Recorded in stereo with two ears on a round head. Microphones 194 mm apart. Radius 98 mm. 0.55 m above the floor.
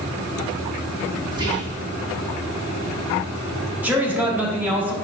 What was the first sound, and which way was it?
Whispering, 20° right (ahead or behind).